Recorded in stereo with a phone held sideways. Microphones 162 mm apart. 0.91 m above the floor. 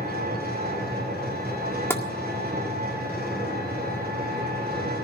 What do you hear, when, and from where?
0.0 s an engine running: 85° right, 9 m
1.9 s tapping: 15° left (ahead or behind), 1.8 m